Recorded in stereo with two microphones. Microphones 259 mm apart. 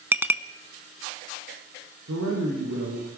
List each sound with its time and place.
0.1 s a clink: 5° right (ahead or behind), 0.9 m
2.0 s a man speaking: 80° right, 7.5 m